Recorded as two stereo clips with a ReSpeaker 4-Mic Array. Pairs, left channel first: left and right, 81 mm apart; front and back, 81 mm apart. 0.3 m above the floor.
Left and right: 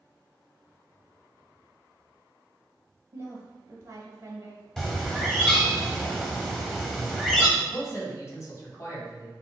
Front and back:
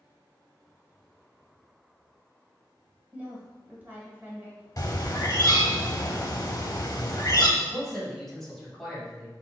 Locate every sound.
3.1 s a woman speaking: 120° right, 1.3 m
4.8 s a bird: 10° left, 0.8 m
7.6 s a man speaking: 85° left, 1.4 m